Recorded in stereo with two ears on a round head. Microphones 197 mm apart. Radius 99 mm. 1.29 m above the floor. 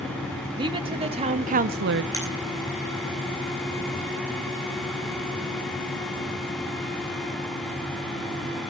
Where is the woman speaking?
20° right (ahead or behind), 2.5 m; by 2.0 s 50° right (ahead or behind), 0.6 m.